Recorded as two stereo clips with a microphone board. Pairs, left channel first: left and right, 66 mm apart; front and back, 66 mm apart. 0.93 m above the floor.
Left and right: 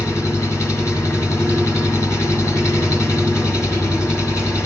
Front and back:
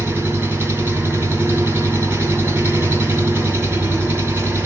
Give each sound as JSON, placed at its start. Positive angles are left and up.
{"t": 0.0, "sound": "an engine running", "azimuth_deg": 130, "distance_m": 2.5}